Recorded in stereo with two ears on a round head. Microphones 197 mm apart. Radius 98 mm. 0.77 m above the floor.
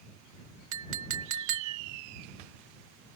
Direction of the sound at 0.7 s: 65° right (ahead or behind).